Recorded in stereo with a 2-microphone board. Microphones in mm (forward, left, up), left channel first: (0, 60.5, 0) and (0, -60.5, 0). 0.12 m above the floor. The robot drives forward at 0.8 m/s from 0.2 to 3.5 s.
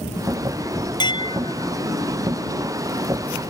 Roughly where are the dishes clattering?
Left.